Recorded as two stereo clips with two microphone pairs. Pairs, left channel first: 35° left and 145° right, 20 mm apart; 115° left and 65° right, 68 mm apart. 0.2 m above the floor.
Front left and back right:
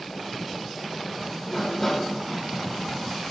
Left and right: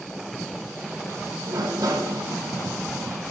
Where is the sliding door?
40° right, 2 m.